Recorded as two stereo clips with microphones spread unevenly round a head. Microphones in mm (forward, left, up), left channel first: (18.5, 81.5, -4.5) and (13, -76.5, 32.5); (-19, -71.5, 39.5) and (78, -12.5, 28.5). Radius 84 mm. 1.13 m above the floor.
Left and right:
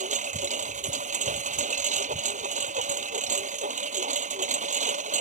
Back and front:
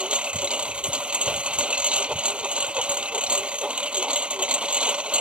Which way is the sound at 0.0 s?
50° right.